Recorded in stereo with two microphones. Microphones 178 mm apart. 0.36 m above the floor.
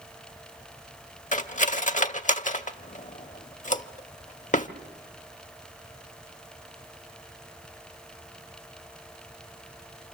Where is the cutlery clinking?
45° left (ahead or behind), 0.8 m.